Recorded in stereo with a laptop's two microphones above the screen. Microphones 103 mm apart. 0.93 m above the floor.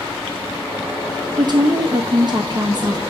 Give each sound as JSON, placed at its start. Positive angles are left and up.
{"t": 1.4, "sound": "a woman speaking", "side_deg": -45, "distance_m": 0.6}